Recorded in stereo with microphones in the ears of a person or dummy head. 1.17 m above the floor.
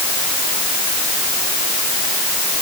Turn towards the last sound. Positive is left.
No sound to turn to.